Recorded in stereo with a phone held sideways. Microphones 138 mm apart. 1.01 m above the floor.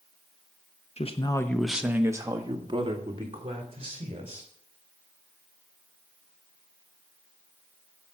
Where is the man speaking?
50° left (ahead or behind), 1.0 m; by 4.5 s 45° right (ahead or behind), 4.5 m.